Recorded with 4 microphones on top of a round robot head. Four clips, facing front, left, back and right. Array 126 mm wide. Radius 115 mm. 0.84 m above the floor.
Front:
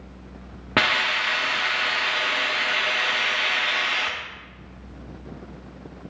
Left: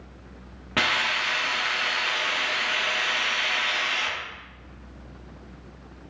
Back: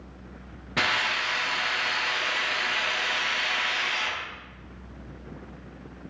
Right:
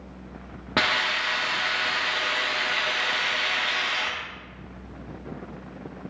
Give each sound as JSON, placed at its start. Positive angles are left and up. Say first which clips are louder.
{"t": 0.8, "sound": "a hiss", "louder": "right 1 dB, front 4 dB", "azimuth_deg": -25, "distance_m": 1.4}